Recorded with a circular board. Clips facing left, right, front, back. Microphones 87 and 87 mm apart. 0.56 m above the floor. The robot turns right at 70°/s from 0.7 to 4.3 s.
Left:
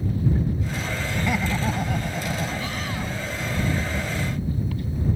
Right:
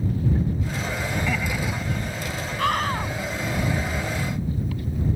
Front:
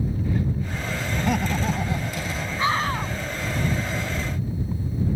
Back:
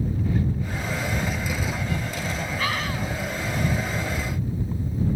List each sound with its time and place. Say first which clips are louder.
1.2 s laughter: left 4 dB, front 4 dB; 5° left; by 3.3 s 155° left
2.6 s a scream: right 6 dB, front 7 dB; 70° right; by 3.1 s 30° right